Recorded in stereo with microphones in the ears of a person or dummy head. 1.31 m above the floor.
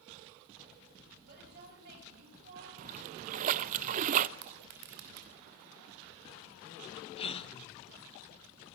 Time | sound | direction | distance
1.2 | a woman speaking | 50° right (ahead or behind) | 9 m
2.8 | a splash | 40° right (ahead or behind) | 0.6 m
4.4 | crushing | 60° right (ahead or behind) | 3 m
7.2 | a gasp | 35° left (ahead or behind) | 1.0 m